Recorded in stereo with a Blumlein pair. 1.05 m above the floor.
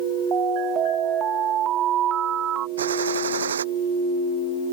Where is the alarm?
30° right.